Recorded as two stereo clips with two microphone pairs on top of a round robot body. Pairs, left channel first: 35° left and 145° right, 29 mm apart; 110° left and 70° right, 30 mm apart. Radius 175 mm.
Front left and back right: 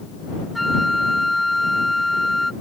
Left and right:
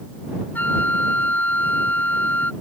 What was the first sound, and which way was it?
A flute, 125° left.